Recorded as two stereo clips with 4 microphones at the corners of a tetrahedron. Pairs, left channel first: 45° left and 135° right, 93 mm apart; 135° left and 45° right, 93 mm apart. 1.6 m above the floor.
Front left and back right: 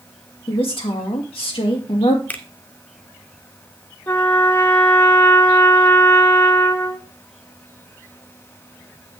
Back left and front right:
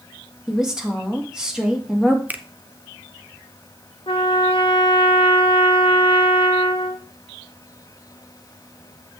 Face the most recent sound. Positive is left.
turn(degrees=110)